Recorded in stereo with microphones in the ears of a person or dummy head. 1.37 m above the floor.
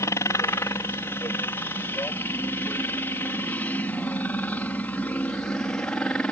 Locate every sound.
0.0 s a helicopter: 15° left (ahead or behind); by 6.3 s 5° left (ahead or behind)